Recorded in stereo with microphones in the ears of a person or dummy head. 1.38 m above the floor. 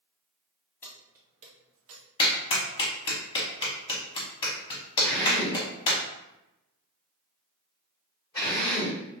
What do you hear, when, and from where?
0.8 s keys jangling: 15° left (ahead or behind), 0.7 m; by 2.0 s 70° right (ahead or behind), 0.9 m
2.2 s a clap: 35° left (ahead or behind), 0.8 m
5.0 s a drill: 15° left (ahead or behind), 1.3 m